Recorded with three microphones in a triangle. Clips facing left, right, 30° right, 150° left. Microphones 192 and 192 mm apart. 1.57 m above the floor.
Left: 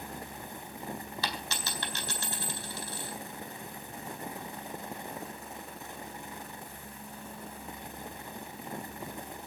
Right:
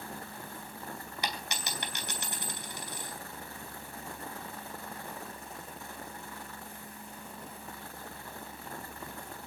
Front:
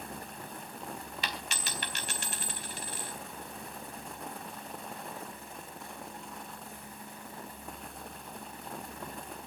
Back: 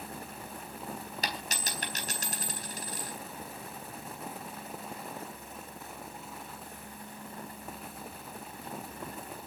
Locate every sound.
1.2 s a dropped coin: 160° right, 3.5 m